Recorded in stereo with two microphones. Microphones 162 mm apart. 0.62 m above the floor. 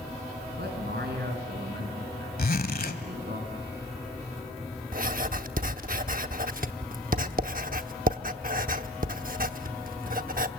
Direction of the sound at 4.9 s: 55° right (ahead or behind).